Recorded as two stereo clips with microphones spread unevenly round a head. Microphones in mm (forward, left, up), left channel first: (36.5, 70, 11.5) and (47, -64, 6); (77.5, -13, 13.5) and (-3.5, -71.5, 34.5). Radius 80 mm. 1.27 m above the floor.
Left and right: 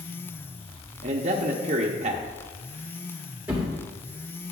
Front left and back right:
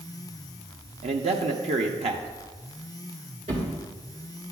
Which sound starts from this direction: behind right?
A man speaking, at 1.0 s.